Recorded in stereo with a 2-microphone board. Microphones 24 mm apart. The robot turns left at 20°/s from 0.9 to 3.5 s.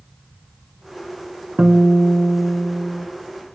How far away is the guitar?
About 2.0 m.